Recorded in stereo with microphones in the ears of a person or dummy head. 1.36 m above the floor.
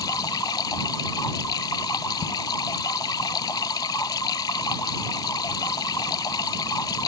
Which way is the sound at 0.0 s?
10° left (ahead or behind).